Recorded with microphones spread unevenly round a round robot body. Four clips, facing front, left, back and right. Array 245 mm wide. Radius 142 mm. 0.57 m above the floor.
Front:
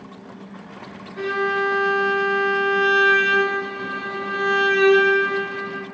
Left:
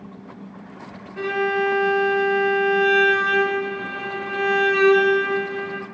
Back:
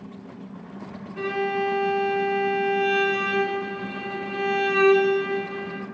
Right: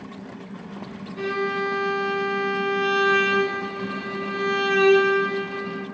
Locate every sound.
1.2 s a violin: 70° left, 0.9 m